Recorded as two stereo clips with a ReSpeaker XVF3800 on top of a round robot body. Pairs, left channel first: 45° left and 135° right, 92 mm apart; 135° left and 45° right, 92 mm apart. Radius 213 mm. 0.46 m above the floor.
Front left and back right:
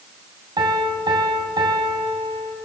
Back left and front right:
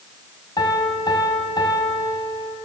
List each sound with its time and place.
0.6 s a piano: 175° right, 3.5 m